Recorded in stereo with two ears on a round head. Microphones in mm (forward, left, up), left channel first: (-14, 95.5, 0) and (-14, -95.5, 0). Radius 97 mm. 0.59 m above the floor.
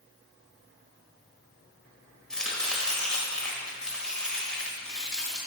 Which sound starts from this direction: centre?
Chopping, at 2.3 s.